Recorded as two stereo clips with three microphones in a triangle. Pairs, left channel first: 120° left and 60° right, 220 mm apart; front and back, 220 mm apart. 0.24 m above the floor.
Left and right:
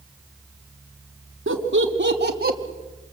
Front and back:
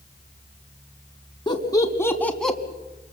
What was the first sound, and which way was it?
Laughter, 65° right.